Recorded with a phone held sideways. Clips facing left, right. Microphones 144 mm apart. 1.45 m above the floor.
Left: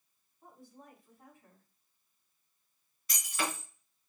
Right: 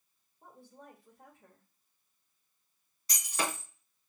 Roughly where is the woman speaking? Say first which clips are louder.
Right 1 dB; right.